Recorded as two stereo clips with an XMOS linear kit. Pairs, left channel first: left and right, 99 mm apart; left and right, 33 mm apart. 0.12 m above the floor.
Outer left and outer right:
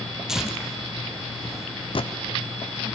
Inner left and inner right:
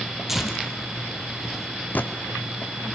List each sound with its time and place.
0.3 s tearing paper: 5° right (ahead or behind), 2.5 m
1.9 s a gunshot: 60° left (ahead or behind), 1.6 m